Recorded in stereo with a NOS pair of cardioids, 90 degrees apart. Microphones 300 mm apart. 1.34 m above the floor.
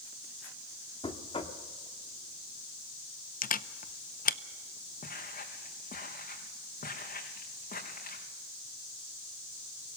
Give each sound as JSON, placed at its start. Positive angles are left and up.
{"t": 1.0, "sound": "knocking", "azimuth_deg": 20, "distance_m": 1.9}
{"t": 3.4, "sound": "a camera shutter", "azimuth_deg": 30, "distance_m": 0.7}
{"t": 5.0, "sound": "footsteps", "azimuth_deg": 30, "distance_m": 4.5}